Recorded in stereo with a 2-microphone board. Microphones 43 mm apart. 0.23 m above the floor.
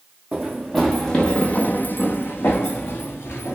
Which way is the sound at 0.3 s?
5° right (ahead or behind).